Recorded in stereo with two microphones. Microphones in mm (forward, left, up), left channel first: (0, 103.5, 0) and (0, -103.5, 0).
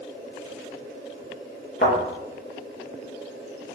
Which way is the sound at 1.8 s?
55° left (ahead or behind).